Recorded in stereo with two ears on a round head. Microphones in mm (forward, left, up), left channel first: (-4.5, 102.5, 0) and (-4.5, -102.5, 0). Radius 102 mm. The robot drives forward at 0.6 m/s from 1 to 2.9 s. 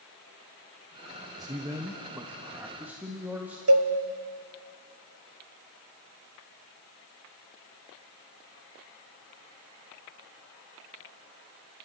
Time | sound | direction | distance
1.4 | a man speaking | 15° right (ahead or behind) | 1.0 m
3.7 | a cowbell | 70° right (ahead or behind) | 1.3 m